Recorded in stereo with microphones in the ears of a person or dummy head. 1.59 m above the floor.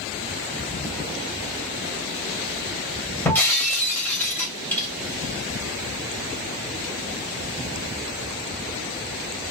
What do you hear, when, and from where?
3.2 s breaking glass: 10° left (ahead or behind), 3 m